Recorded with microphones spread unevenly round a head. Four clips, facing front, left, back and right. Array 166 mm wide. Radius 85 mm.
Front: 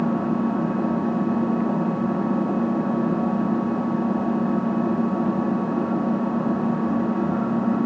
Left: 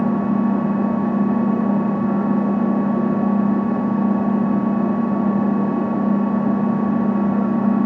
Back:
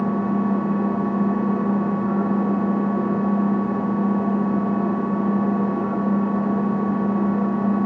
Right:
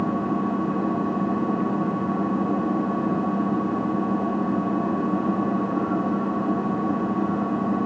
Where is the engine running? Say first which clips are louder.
Left 5 dB, even; 65° left, 7 m.